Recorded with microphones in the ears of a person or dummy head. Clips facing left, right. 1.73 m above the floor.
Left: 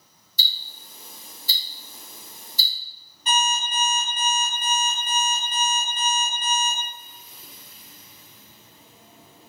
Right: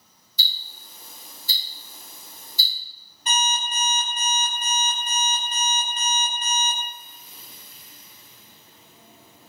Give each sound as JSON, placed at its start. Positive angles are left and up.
{"t": 0.4, "sound": "ticking", "side_deg": 50, "distance_m": 1.0}
{"t": 3.3, "sound": "an alarm clock", "side_deg": -35, "distance_m": 1.6}